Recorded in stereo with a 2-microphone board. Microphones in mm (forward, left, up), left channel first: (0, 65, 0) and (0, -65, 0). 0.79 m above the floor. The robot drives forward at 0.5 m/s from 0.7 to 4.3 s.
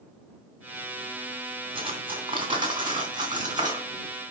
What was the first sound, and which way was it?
Cutlery clinking, 40° right (ahead or behind).